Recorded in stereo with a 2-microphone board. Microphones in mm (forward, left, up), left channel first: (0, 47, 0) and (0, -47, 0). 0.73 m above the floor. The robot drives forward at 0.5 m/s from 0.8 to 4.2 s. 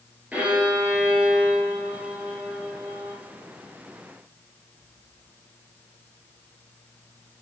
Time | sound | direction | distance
0.3 | a violin | 15° right (ahead or behind) | 1.9 m